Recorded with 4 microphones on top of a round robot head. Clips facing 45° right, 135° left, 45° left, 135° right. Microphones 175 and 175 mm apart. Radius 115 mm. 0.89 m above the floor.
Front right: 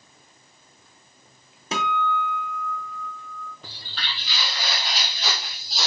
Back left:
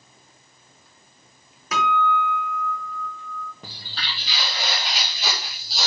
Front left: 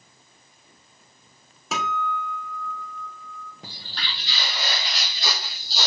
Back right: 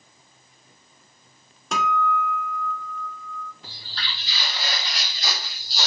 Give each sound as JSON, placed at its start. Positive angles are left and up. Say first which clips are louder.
{"t": 1.7, "sound": "a guitar", "louder": "back left 3 dB, back right 4 dB", "azimuth_deg": -40, "distance_m": 0.9}
{"t": 3.6, "sound": "footsteps", "louder": "back left 1 dB, front left 1 dB", "azimuth_deg": 90, "distance_m": 1.7}